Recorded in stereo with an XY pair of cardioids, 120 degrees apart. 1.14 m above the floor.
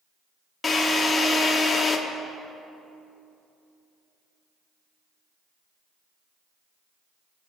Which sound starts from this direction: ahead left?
A drill, at 0.6 s.